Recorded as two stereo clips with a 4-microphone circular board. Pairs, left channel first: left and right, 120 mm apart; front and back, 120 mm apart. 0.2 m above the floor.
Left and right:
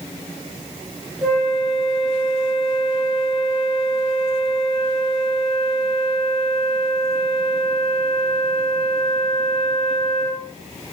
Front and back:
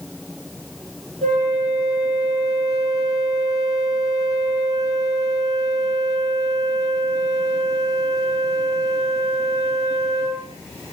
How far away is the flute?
About 1.2 m.